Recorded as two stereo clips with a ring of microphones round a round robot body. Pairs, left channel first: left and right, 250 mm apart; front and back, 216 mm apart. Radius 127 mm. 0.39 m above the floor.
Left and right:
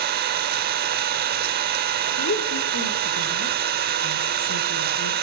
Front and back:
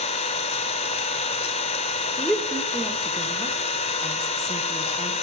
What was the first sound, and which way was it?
An engine running, 55° right.